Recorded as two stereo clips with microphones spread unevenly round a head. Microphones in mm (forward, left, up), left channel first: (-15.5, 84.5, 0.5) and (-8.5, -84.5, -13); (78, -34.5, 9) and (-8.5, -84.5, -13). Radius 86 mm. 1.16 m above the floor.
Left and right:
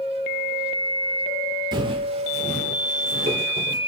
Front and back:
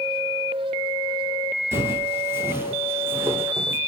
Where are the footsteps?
95° right, 1.2 m; by 3.8 s 75° right, 1.9 m.